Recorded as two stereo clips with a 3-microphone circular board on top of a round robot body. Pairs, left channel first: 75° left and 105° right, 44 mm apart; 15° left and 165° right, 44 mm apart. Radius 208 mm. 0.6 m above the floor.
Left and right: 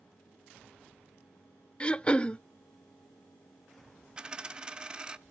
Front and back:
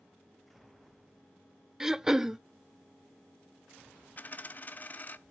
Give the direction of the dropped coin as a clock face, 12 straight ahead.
1 o'clock.